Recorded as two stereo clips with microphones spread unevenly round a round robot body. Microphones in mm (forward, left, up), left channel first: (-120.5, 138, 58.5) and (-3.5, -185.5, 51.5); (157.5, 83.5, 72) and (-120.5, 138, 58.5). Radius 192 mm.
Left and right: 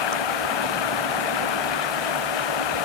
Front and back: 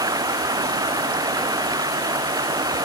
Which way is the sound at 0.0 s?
90° left.